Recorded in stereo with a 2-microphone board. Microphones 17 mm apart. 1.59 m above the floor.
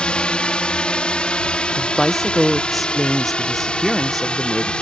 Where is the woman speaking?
10° left (ahead or behind).